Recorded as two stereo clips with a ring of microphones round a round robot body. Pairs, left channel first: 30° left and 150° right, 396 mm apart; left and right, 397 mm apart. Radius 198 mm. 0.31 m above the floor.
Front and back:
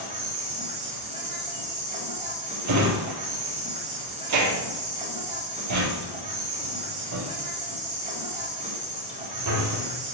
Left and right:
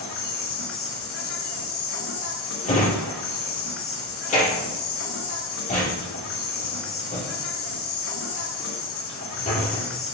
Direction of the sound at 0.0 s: 140° left.